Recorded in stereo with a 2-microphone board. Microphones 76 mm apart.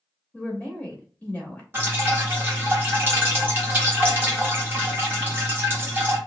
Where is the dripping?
30° right (ahead or behind), 1.1 m.